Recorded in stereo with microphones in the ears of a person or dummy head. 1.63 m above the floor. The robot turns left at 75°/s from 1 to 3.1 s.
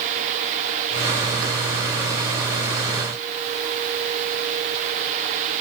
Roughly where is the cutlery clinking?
No cutlery clinking in this recording.